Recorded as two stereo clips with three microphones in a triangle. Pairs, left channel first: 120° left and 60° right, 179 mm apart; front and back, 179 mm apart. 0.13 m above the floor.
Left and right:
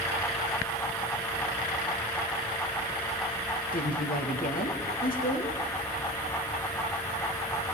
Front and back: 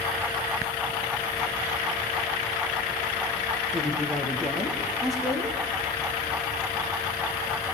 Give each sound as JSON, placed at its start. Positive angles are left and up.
{"t": 3.7, "sound": "a woman speaking", "azimuth_deg": 90, "distance_m": 3.5}